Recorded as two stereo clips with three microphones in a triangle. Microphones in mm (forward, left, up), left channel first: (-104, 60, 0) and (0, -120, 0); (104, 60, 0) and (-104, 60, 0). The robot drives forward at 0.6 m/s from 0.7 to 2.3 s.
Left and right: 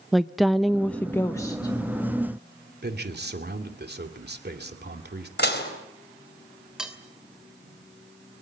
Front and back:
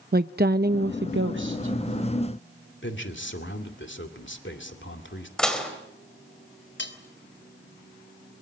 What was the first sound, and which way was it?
A woman speaking, 150° right.